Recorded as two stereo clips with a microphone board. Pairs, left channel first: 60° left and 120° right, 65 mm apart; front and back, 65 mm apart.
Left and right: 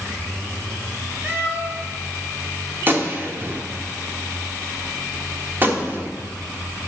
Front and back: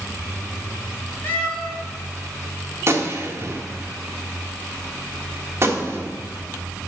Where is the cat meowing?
60° right, 2 m.